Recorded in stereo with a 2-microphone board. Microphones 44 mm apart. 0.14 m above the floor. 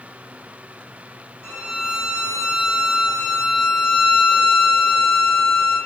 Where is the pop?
No pop in this recording.